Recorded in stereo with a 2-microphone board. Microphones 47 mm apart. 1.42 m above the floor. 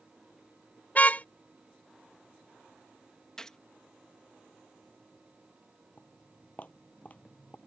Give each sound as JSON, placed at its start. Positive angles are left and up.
{"t": 0.9, "sound": "a car horn", "side_deg": 35}
{"t": 3.4, "sound": "a gunshot", "side_deg": 15}
{"t": 6.0, "sound": "footsteps", "side_deg": 30}